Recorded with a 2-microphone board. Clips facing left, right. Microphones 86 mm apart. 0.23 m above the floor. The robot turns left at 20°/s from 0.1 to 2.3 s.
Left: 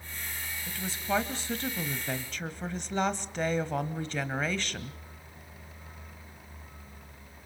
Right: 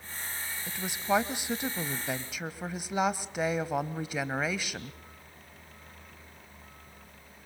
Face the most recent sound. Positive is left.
turn(degrees=-10)  # may be behind; listen again after turning